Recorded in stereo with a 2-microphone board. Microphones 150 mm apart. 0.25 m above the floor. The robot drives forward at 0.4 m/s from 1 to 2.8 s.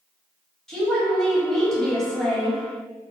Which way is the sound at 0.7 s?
5° left (ahead or behind).